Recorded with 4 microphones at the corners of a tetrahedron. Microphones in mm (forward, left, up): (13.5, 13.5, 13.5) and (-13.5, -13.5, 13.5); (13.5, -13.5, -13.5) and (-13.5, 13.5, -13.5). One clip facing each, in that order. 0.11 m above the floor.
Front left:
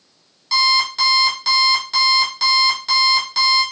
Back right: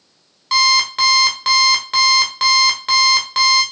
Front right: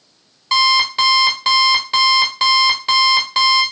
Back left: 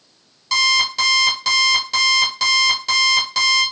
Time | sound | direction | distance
0.5 | an alarm clock | 95° right | 1.1 m